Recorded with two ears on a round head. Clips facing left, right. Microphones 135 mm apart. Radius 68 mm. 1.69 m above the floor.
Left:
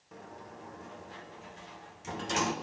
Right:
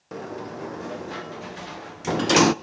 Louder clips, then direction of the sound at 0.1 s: Right 14 dB; 70° right (ahead or behind).